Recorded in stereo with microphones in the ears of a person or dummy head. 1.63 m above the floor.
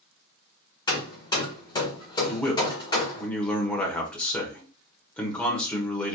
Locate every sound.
0.9 s hammering: 25° left (ahead or behind), 1.5 m
2.3 s a man speaking: 10° left (ahead or behind), 1.1 m